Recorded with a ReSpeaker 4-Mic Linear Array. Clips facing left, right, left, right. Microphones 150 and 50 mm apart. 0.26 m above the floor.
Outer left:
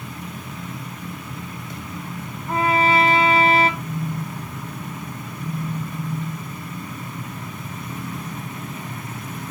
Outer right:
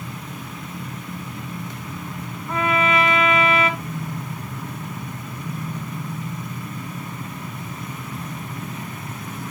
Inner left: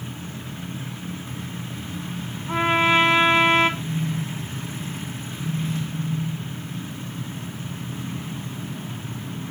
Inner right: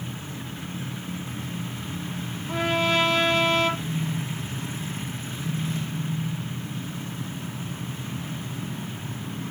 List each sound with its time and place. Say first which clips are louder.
2.5 s a trumpet: outer left 2 dB, inner left 5 dB; 30° left (ahead or behind), 1.8 m
3.8 s a phone buzzing: outer left 2 dB, inner left 2 dB; 25° left (ahead or behind), 2.5 m